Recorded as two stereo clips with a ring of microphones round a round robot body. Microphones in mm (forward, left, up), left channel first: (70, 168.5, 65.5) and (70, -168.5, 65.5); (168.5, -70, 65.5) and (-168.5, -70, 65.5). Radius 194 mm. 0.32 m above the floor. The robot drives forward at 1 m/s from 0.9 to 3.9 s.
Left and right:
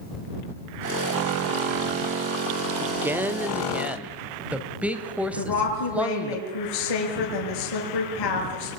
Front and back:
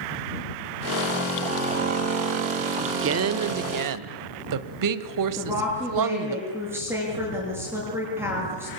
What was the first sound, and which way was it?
A woman speaking, 165° right.